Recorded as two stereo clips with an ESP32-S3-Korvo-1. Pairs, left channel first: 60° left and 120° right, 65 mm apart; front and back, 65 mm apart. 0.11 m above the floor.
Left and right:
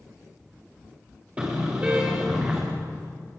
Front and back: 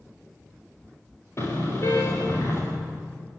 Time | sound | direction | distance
1.4 | a car horn | 50° right | 7 m